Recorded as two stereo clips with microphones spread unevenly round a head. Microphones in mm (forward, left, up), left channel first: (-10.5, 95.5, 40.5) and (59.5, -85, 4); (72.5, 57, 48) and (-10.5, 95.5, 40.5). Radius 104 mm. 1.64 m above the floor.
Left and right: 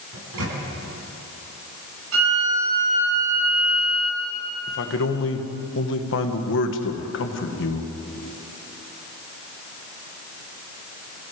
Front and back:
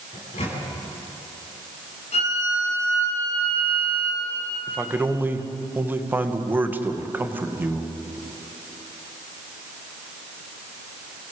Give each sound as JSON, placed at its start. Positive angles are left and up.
{"t": 0.1, "sound": "a microwave", "azimuth_deg": -60, "distance_m": 9.5}
{"t": 2.1, "sound": "a violin", "azimuth_deg": -50, "distance_m": 7.0}
{"t": 4.7, "sound": "a man speaking", "azimuth_deg": 85, "distance_m": 2.0}